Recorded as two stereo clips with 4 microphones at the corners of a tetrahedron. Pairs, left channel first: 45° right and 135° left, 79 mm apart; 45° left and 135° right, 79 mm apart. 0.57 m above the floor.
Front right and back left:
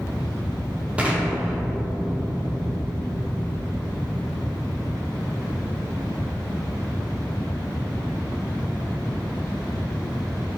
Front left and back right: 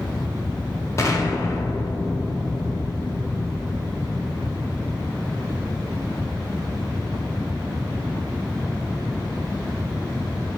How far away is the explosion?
About 0.6 m.